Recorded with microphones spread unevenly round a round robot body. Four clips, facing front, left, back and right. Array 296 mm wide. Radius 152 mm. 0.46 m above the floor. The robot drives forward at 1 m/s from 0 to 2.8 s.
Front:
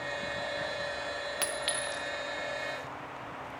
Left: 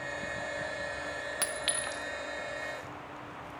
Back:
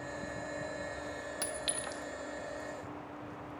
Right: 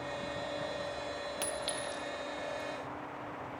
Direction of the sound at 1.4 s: 165° right.